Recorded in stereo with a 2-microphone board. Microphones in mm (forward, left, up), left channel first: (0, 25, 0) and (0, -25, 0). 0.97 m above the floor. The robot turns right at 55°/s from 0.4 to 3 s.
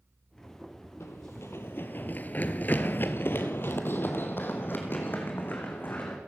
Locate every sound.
1.0 s running footsteps: 65° left (ahead or behind), 2 m; by 6.2 s 40° left (ahead or behind), 4.5 m